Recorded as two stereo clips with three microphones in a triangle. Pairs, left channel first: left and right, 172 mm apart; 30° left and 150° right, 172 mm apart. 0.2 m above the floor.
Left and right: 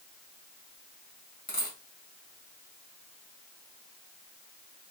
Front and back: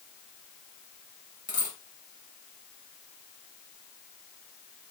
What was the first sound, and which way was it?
A dropped coin, 60° left.